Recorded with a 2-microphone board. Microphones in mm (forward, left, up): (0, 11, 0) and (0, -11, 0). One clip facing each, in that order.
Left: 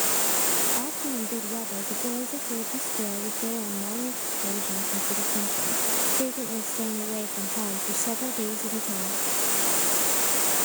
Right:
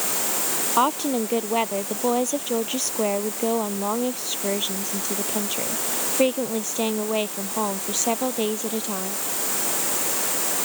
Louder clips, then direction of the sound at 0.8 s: Right 10 dB; 75° right (ahead or behind).